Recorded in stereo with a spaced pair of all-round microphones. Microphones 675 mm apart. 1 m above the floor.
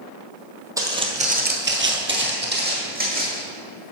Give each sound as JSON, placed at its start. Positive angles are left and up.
{"t": 0.8, "sound": "footsteps", "side_deg": -5, "distance_m": 1.5}